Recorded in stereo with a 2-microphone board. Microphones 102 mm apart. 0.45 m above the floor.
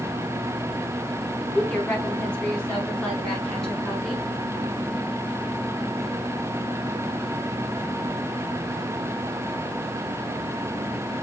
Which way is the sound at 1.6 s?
15° left (ahead or behind).